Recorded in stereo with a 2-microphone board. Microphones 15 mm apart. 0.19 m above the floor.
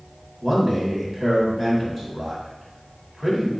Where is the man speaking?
20° right (ahead or behind), 1.3 m.